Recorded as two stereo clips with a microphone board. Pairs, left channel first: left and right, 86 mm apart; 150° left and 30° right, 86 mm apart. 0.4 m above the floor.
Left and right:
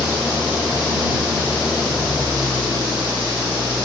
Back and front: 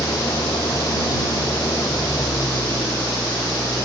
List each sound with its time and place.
0.0 s an engine running: 165° right